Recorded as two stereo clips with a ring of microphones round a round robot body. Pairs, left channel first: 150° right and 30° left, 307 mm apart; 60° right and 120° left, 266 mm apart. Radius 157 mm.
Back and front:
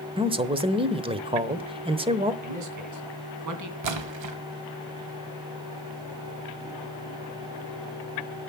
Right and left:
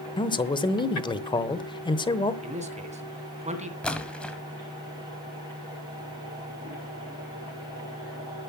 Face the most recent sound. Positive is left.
turn(degrees=25)